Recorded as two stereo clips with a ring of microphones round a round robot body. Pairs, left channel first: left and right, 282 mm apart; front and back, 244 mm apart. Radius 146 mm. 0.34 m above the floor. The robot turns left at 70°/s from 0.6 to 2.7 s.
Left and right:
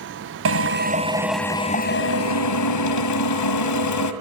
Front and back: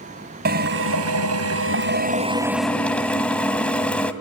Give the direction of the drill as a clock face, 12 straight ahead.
4 o'clock.